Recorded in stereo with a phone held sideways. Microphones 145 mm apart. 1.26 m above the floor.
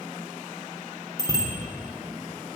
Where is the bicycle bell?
25° right (ahead or behind), 3 m.